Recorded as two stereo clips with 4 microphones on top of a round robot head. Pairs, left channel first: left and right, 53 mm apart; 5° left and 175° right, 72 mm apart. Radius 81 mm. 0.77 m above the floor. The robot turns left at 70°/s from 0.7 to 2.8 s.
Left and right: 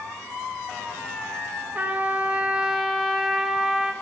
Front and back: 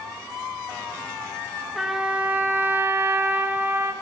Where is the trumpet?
90° right, 1.1 m; by 3.9 s 165° right, 1.1 m.